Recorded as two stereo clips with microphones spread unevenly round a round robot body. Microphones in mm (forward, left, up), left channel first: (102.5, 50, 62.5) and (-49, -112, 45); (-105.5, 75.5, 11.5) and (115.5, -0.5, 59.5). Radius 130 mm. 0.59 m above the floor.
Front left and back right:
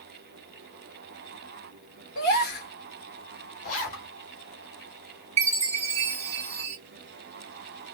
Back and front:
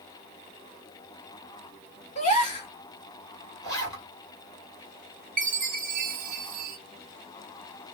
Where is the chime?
80° right, 0.7 m.